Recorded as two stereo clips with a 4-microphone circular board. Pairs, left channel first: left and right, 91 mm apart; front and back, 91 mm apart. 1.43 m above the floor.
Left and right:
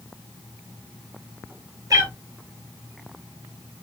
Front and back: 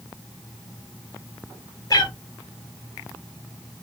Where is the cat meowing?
45° right, 3 m.